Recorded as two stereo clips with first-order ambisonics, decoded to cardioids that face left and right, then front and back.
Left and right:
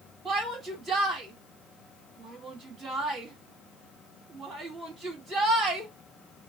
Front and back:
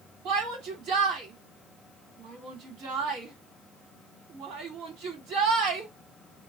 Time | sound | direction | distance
0.2 | a shout | 150° right | 2.5 m